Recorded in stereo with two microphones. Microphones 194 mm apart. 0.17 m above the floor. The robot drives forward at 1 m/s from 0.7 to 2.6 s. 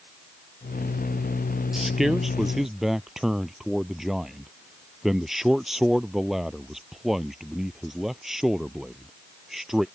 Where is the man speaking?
Centre (ahead or behind).